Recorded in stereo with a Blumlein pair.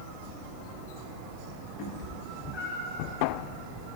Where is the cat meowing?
35° left, 1.6 m; by 3.1 s 30° left, 2.5 m.